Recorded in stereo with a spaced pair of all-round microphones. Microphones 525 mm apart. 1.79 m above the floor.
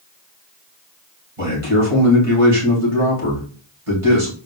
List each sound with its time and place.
1.4 s a man speaking: 85° right, 2.5 m